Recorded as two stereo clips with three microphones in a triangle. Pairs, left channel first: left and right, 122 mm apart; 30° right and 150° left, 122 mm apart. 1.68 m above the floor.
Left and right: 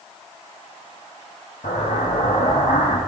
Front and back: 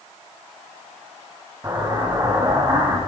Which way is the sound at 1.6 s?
85° left.